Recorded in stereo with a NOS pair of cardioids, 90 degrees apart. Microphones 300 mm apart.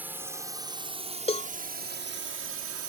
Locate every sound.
0.0 s a drone: 5° right; by 2.9 s 60° right
1.3 s a cowbell: 20° left